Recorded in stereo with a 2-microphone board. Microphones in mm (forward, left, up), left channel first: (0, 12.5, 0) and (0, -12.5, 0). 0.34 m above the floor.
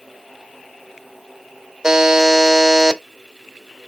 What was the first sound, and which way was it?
A buzzer, 20° right (ahead or behind).